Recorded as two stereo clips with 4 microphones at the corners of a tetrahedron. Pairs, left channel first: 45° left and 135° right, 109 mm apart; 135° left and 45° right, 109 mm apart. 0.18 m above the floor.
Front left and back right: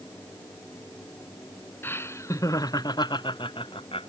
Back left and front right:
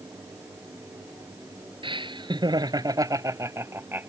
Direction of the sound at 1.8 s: 20° right.